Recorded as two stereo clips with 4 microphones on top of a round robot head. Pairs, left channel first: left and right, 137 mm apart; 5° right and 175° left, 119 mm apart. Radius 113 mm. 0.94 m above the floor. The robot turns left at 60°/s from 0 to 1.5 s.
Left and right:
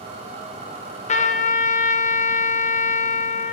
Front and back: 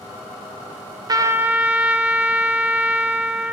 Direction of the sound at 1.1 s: 120° left.